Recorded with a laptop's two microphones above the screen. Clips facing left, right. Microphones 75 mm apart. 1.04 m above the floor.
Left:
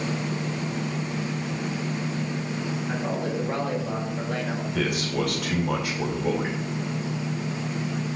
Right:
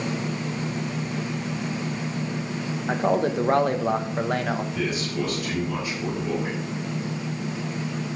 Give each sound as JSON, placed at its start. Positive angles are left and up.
{"t": 2.9, "sound": "a man speaking", "side_deg": -55, "distance_m": 1.2}
{"t": 4.7, "sound": "a man speaking", "side_deg": 70, "distance_m": 3.5}